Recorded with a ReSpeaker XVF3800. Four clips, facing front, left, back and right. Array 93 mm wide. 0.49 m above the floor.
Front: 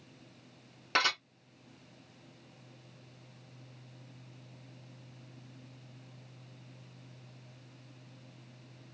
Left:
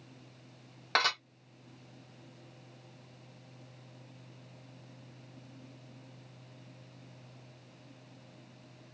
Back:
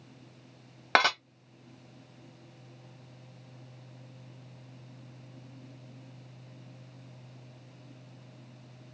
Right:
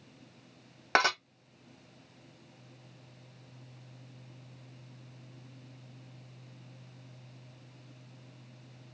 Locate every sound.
0.9 s dishes clattering: 160° right, 2 m